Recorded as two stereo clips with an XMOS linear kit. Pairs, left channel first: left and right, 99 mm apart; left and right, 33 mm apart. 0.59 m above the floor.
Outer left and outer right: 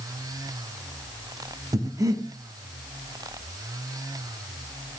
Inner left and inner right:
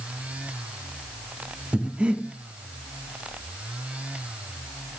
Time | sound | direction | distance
1.7 | breathing | 35° right (ahead or behind) | 0.5 m